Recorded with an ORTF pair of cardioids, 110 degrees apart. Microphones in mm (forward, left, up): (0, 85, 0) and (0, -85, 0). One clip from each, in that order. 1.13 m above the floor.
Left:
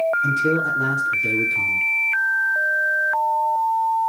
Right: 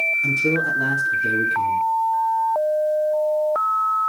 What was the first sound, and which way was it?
A man speaking, 5° left.